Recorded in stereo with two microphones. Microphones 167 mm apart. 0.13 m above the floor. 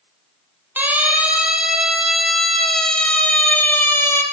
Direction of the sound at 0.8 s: 10° right (ahead or behind).